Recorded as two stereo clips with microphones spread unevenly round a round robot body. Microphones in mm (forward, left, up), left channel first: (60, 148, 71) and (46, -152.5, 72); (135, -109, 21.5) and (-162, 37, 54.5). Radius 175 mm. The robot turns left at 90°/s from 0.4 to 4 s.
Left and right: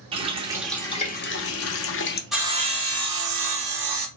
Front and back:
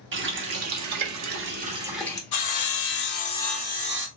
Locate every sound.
0.1 s a running tap: 160° right, 0.7 m; by 2.2 s 40° left, 0.7 m
2.3 s sawing: 5° right, 1.0 m; by 4.1 s 155° right, 1.0 m